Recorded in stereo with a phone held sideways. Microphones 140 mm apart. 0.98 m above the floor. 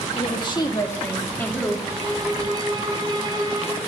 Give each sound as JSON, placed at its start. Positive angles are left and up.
{"t": 0.2, "sound": "a woman speaking", "side_deg": 40, "distance_m": 1.8}
{"t": 1.9, "sound": "a violin", "side_deg": -30, "distance_m": 2.5}